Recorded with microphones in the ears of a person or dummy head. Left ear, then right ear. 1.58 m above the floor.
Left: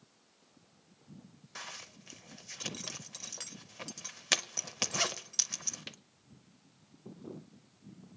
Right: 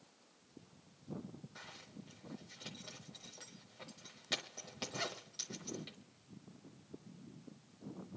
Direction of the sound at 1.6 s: 65° left (ahead or behind).